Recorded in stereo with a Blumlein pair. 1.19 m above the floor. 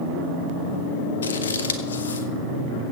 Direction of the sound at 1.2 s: 70° left.